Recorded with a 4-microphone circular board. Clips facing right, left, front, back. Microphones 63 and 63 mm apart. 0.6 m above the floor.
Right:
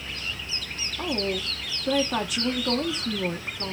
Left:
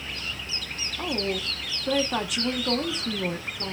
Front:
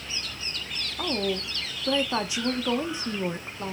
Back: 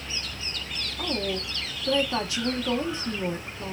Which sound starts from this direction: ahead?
A woman speaking, at 1.0 s.